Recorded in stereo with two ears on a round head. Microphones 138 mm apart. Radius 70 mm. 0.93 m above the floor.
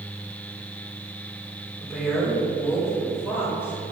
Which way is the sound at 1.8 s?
5° left (ahead or behind).